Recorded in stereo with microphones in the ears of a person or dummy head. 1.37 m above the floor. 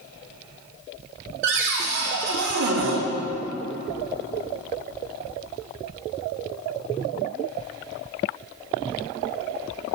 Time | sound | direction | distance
1.4 | a cupboard door | 60° right (ahead or behind) | 1.1 m